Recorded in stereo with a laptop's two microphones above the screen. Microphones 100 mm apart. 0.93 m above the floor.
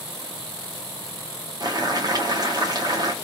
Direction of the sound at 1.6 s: 40° right (ahead or behind).